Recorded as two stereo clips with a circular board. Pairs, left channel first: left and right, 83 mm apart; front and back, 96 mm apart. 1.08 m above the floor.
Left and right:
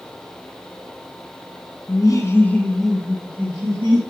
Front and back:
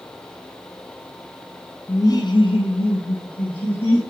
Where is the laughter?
55° left, 0.9 m; by 4.0 s 40° right, 1.5 m.